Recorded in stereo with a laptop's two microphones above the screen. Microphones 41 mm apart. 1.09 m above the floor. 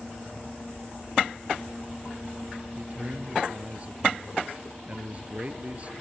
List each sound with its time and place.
2.8 s a man speaking: 35° right (ahead or behind)